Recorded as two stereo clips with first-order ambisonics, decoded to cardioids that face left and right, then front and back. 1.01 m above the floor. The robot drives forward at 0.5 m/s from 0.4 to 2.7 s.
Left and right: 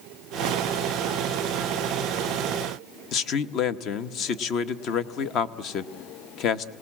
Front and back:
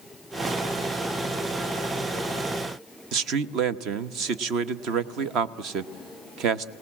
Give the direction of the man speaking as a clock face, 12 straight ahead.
7 o'clock.